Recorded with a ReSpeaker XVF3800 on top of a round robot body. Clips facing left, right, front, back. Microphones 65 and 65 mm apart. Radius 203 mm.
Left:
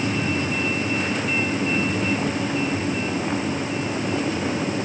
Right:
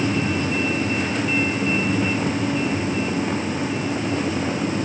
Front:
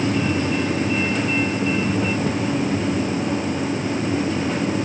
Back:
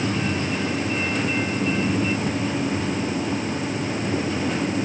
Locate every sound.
Only background noise.